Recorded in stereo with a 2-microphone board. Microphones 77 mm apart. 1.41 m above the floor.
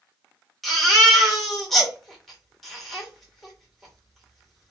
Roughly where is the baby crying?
Centre.